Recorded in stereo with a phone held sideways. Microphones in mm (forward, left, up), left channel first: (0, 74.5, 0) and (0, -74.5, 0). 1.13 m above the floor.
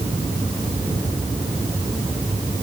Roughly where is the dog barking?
No dog barking in this recording.